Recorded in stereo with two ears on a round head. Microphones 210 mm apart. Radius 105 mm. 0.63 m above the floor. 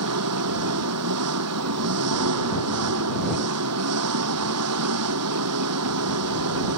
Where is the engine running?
75° right (ahead or behind).